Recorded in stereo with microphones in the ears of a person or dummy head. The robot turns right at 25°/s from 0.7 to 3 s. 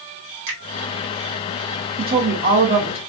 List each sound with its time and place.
0.5 s a finger snap: 40° right (ahead or behind), 1.2 m
2.0 s a woman speaking: 20° right (ahead or behind), 0.7 m; by 3.0 s 25° right (ahead or behind), 0.7 m